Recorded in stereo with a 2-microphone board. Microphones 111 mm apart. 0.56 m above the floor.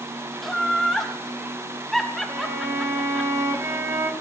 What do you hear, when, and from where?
0.4 s laughter: 5° left (ahead or behind), 1.1 m
2.3 s a violin: 30° right (ahead or behind), 1.7 m